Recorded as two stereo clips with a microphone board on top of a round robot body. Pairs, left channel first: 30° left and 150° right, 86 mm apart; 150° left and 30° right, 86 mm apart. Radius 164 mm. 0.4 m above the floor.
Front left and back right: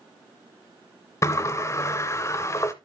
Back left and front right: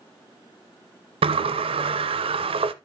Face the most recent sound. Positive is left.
turn(degrees=-30)